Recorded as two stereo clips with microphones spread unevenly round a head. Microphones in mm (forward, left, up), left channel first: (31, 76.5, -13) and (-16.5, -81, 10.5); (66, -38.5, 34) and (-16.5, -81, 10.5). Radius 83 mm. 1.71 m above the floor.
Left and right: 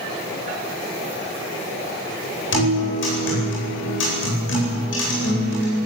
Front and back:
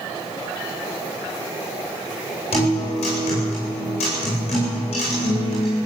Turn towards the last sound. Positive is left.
turn(degrees=60)